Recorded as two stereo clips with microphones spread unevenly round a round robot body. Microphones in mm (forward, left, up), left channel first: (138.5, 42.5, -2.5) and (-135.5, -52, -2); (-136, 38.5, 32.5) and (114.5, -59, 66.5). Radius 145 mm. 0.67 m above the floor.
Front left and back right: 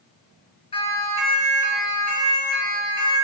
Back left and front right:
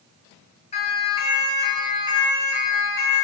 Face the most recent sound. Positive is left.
turn(degrees=80)